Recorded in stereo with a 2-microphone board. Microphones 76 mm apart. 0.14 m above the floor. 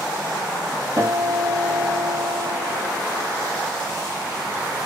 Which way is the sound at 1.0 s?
40° right (ahead or behind).